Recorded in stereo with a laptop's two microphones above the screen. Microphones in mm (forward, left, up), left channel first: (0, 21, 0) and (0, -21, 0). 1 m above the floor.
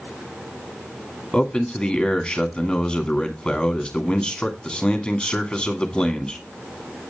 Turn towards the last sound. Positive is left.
turn(degrees=15)  # may be behind; listen again after turning